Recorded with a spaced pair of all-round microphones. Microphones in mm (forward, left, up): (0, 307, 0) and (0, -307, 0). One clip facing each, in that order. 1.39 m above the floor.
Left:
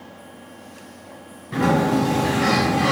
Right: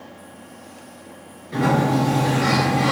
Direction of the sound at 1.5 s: 30° left (ahead or behind).